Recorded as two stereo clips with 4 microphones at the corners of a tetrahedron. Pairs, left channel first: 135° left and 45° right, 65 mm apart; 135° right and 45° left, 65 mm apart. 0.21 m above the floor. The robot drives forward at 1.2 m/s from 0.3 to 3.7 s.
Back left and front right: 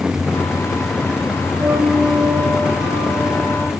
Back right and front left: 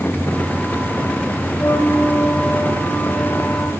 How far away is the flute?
About 9 m.